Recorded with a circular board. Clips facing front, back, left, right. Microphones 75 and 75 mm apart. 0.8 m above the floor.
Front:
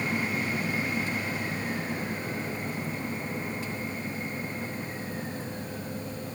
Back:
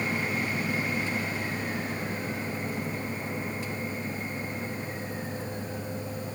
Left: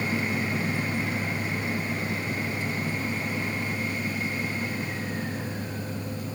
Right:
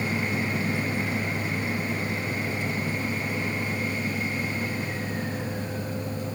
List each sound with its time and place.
Only background noise.